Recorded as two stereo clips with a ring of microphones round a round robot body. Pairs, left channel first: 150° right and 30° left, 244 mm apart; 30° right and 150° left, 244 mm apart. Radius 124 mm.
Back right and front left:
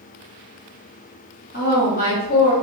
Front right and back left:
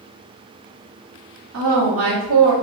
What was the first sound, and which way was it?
A woman speaking, 165° left.